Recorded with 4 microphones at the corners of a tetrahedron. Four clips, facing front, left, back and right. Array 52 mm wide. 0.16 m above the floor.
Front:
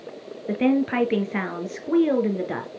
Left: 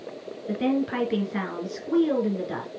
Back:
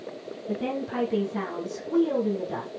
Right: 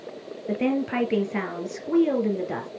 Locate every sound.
0.5 s a woman speaking: 10° right, 2.5 m